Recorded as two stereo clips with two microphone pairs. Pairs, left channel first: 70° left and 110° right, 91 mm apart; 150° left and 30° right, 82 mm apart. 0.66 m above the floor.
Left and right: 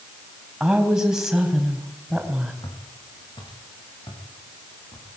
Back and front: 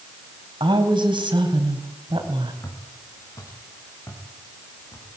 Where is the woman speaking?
25° right, 4.5 m.